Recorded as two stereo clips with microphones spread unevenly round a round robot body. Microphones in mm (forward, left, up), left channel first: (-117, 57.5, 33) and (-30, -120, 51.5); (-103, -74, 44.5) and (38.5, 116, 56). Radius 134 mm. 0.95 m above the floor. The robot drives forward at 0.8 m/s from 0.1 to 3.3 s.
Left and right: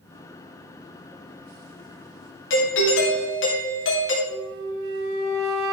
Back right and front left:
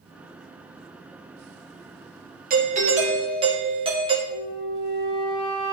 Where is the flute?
55° right, 1.4 m.